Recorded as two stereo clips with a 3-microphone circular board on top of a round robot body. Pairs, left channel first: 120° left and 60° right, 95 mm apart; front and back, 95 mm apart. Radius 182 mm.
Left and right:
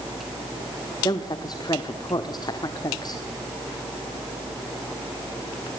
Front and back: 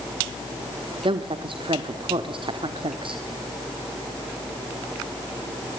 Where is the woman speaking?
160° left, 1.6 m.